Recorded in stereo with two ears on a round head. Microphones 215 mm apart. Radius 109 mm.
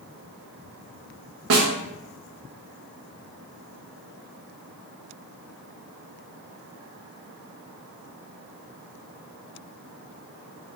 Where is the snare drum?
70° right (ahead or behind), 0.7 m.